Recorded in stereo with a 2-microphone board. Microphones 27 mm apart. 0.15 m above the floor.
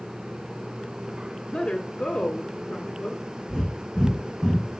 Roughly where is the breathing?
Right.